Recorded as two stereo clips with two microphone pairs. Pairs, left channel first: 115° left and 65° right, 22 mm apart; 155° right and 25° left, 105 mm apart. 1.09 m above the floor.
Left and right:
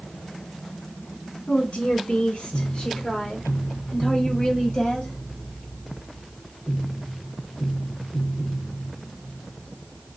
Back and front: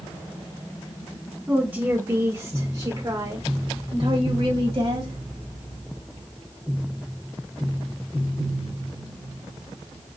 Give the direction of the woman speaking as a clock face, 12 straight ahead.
9 o'clock.